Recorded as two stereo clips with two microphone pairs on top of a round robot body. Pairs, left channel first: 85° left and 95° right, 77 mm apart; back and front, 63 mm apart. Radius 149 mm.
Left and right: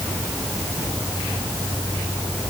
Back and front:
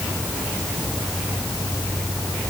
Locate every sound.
Only background noise.